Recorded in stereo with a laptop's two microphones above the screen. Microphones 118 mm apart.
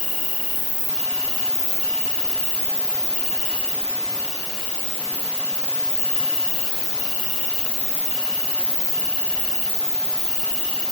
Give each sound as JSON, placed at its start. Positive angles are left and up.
{"t": 0.0, "sound": "an insect", "side_deg": -15, "distance_m": 2.0}